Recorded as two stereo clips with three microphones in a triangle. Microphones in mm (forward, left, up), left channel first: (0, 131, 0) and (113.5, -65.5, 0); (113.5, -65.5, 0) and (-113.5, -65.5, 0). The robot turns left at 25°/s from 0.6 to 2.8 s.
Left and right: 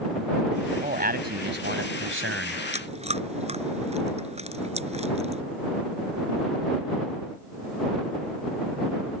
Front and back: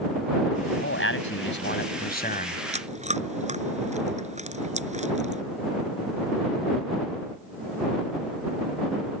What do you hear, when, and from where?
0.7 s a man speaking: 5° right; by 2.6 s 55° right
2.7 s chewing: 120° right